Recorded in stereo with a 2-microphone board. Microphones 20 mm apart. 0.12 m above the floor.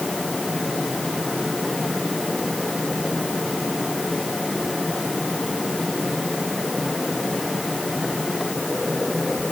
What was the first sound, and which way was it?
Only background noise.